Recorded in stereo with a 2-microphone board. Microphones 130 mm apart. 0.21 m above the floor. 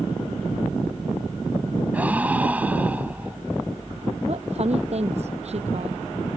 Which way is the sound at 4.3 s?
55° right (ahead or behind).